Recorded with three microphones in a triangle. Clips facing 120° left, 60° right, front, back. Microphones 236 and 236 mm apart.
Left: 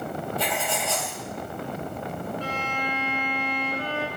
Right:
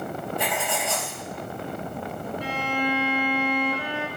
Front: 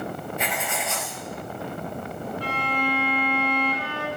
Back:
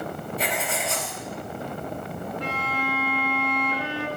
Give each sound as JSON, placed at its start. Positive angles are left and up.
{"t": 0.4, "sound": "writing", "azimuth_deg": -130, "distance_m": 2.0}
{"t": 2.4, "sound": "a violin", "azimuth_deg": -125, "distance_m": 1.5}